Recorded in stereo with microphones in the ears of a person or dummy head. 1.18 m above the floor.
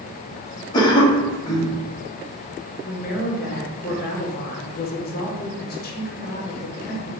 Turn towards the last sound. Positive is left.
turn(degrees=45)  # may be behind; listen again after turning